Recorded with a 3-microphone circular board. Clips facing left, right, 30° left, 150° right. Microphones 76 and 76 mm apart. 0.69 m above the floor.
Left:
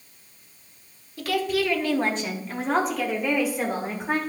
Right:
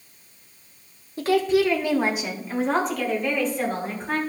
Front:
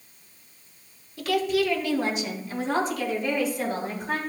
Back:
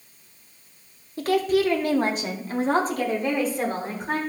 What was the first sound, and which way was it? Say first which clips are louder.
A woman speaking: right 5 dB, back 3 dB; 125° right.